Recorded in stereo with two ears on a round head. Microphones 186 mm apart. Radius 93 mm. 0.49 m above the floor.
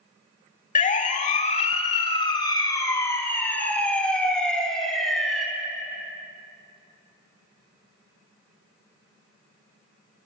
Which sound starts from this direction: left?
A siren, at 0.8 s.